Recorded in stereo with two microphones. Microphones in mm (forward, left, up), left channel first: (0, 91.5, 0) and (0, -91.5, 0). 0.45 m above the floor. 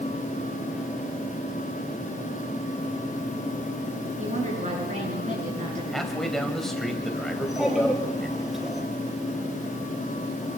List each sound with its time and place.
4.2 s a woman speaking: 45° right (ahead or behind), 7.5 m
5.9 s a man speaking: centre (ahead or behind), 2.5 m
7.3 s a child speaking: centre (ahead or behind), 8 m